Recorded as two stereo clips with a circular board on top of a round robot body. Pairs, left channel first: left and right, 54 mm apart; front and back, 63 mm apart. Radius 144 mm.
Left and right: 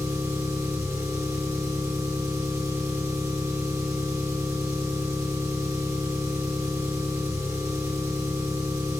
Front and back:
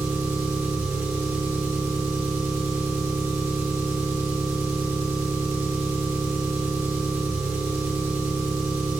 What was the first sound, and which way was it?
An engine running, 125° right.